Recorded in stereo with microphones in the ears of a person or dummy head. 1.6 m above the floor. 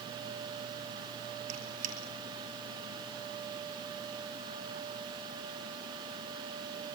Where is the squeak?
40° right (ahead or behind), 3.5 m.